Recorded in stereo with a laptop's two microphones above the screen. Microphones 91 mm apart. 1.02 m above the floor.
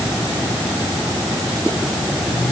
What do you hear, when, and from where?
Only background noise.